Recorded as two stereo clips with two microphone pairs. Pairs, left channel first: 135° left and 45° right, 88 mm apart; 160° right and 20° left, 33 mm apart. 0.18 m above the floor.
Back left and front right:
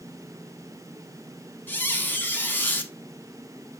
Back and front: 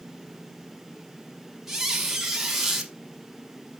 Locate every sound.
1.7 s a squeak: 90° left, 0.6 m